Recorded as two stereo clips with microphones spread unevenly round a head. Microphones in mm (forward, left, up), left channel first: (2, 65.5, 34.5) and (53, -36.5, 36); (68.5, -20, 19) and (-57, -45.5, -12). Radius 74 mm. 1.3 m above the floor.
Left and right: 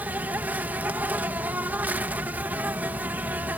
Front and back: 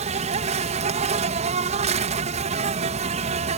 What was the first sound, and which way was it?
An insect, 140° right.